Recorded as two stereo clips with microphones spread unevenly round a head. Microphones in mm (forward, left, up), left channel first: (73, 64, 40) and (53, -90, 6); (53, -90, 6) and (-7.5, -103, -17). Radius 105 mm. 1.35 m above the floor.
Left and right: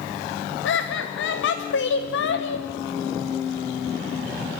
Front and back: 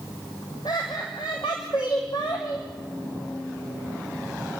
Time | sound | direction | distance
0.7 | laughter | 85° left | 1.1 m